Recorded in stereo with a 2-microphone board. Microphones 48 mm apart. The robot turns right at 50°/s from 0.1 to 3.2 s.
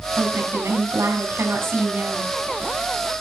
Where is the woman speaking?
130° right, 5 m; by 2.3 s 20° right, 5 m.